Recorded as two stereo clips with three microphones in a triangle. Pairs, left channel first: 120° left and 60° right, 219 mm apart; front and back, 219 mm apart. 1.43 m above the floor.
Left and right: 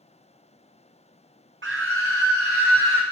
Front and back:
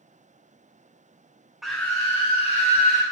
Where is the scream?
90° right, 0.7 m; by 3.0 s 55° right, 1.8 m.